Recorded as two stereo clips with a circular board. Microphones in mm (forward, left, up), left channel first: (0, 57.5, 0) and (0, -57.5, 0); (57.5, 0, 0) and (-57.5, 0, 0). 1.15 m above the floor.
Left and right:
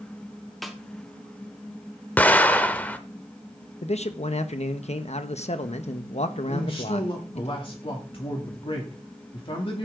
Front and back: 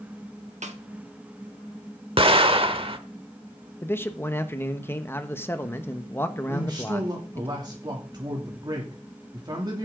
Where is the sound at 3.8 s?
70° left, 1.1 m.